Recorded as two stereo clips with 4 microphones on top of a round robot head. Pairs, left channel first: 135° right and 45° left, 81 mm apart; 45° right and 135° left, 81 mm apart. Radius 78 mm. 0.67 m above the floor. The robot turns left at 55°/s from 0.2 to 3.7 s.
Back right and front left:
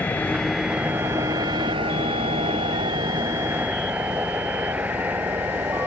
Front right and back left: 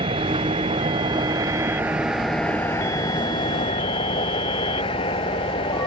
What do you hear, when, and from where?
0.0 s a vehicle: 150° left; by 5.9 s 25° right